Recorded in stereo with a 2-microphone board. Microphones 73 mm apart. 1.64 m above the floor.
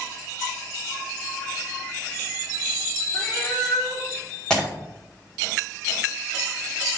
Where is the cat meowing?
5° left (ahead or behind), 2.5 m.